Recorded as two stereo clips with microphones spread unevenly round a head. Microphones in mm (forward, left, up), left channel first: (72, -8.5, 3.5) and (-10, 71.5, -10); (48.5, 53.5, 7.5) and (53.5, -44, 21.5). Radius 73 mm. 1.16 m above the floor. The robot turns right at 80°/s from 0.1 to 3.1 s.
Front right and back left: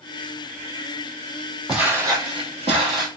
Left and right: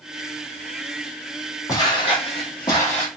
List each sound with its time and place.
1.7 s footsteps: 45° left, 1.7 m; by 3.1 s 170° right, 1.4 m